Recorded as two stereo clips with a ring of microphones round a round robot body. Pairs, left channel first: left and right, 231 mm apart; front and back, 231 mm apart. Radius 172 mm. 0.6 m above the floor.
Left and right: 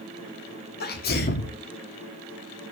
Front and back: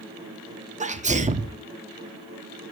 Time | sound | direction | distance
0.8 | a sneeze | 125° left | 1.0 m